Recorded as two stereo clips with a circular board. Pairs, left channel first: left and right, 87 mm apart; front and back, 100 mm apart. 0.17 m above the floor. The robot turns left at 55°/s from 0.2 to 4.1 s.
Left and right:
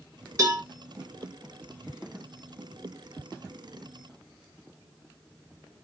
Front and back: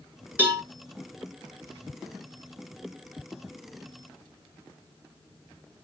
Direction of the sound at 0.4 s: 115° right.